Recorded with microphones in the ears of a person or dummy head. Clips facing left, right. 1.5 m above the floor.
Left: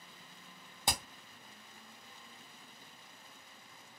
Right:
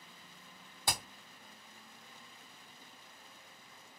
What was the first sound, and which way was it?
Hammering, 20° left (ahead or behind).